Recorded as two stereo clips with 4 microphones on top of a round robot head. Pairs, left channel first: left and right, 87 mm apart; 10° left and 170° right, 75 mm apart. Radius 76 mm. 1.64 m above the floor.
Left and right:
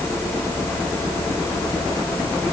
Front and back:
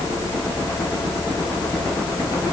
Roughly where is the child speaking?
I don't hear a child speaking.